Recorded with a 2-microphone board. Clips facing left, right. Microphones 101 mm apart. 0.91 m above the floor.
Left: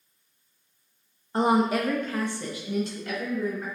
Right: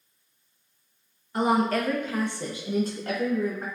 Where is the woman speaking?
30° left (ahead or behind), 0.7 m; by 3.7 s 60° right (ahead or behind), 1.1 m.